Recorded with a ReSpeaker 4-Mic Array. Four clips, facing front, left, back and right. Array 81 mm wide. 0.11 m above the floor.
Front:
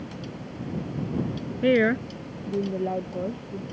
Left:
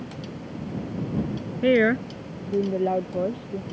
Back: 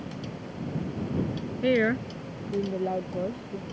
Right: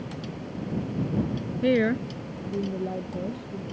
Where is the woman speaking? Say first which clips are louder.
Left 4 dB, front 3 dB; 55° left; by 3.6 s 95° left.